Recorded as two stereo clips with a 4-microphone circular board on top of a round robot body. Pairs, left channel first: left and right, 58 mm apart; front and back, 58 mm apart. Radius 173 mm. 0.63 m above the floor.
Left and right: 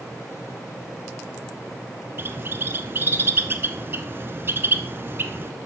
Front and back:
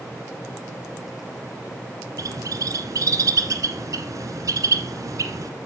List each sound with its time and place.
2.2 s a bird: 145° right, 1.5 m